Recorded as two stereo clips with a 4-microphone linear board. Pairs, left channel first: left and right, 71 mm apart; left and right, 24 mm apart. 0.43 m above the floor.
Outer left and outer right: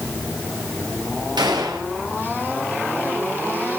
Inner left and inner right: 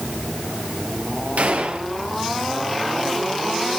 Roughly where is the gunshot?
Right.